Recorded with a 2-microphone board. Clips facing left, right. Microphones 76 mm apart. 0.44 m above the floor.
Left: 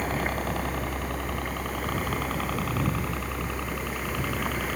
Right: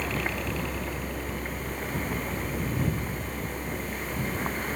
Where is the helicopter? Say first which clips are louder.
Left 2 dB; 45° left (ahead or behind); by 4.8 s 75° left (ahead or behind).